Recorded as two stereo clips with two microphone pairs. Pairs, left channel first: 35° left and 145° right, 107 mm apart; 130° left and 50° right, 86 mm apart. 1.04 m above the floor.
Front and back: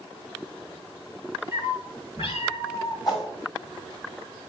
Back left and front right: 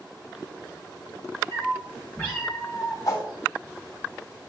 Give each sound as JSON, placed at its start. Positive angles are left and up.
{"t": 1.5, "sound": "a cat meowing", "azimuth_deg": 70, "distance_m": 3.5}
{"t": 3.0, "sound": "a whoosh", "azimuth_deg": 80, "distance_m": 4.0}